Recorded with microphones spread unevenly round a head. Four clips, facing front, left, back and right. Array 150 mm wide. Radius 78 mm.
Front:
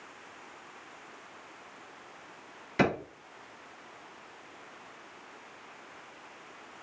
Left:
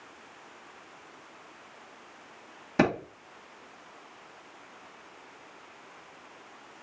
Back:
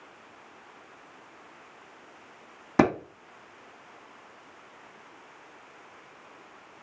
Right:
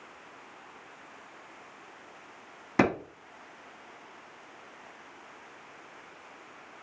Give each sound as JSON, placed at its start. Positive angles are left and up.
{"t": 2.8, "sound": "a clap", "azimuth_deg": -170, "distance_m": 1.8}